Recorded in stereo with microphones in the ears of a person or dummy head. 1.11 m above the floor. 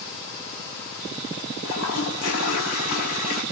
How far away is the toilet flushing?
About 8.5 m.